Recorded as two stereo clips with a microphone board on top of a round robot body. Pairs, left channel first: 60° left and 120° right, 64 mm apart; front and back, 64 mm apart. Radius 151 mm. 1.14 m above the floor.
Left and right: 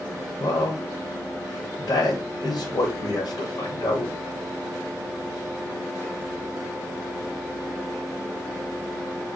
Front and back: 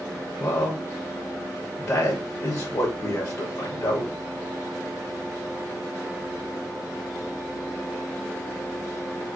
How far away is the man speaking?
About 1.7 m.